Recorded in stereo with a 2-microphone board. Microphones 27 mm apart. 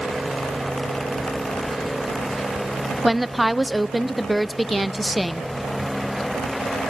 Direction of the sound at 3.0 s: Centre (ahead or behind).